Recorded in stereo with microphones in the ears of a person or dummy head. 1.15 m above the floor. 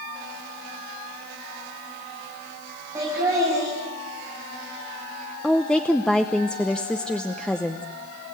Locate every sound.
3.0 s laughter: 20° right (ahead or behind), 8.5 m
5.4 s a woman speaking: 5° left (ahead or behind), 0.8 m